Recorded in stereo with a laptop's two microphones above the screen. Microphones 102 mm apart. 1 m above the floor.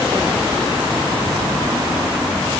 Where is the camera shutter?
No camera shutter in this recording.